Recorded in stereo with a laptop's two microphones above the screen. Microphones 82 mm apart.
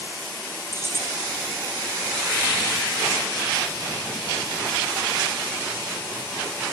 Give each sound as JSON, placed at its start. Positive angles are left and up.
{"t": 0.7, "sound": "keys jangling", "side_deg": -30, "distance_m": 4.5}